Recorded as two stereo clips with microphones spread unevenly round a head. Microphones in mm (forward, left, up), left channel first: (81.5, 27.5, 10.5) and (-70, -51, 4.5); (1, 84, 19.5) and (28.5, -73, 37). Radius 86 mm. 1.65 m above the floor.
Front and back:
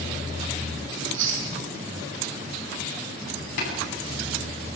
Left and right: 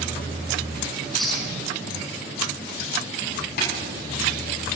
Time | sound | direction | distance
1.0 | chewing | 170° right | 4 m
3.6 | tapping | 70° left | 10 m